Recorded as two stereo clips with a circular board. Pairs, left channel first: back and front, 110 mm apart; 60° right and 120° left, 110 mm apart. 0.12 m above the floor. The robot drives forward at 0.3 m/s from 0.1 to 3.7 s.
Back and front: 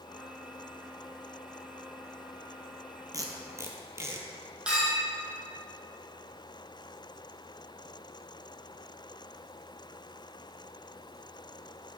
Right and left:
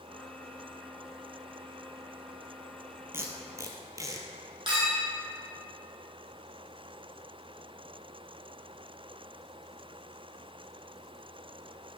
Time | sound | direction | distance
3.1 | tape being pulled | 55° left | 1.1 m
4.7 | a clink | 80° left | 2.5 m